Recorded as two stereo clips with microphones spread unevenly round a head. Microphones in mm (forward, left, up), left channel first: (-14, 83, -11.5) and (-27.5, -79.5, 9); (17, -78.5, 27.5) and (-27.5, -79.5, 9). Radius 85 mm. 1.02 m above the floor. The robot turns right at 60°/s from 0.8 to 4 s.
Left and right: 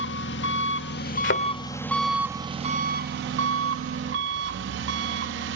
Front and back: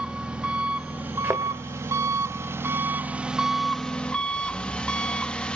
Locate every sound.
0.0 s an engine running: 100° left, 1.1 m; by 5.6 s 70° right, 1.1 m
1.2 s a thud: 95° left, 1.5 m; by 1.4 s 110° left, 1.5 m